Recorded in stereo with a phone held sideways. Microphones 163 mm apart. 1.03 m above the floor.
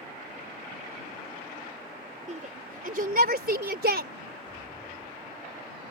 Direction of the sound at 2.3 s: 45° right (ahead or behind).